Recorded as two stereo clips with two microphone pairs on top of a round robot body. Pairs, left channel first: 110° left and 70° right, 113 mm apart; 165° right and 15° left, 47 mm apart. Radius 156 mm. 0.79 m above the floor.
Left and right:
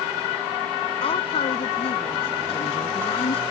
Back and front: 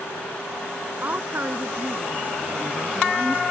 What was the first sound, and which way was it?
A woman speaking, 75° left.